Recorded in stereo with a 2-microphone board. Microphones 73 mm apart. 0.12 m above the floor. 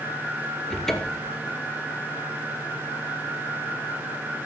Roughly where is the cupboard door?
Centre.